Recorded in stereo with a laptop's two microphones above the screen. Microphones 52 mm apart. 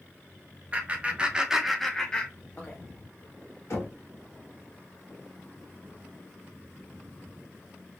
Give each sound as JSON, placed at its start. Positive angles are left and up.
{"t": 0.7, "sound": "laughter", "side_deg": -25, "distance_m": 0.8}
{"t": 3.7, "sound": "knocking", "side_deg": 65, "distance_m": 1.3}